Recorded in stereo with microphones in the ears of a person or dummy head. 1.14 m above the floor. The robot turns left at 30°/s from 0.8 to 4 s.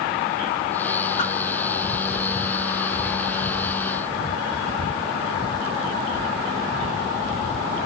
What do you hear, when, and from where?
1.2 s a whoosh: 35° left (ahead or behind), 2.5 m; by 1.3 s 40° left (ahead or behind), 2.5 m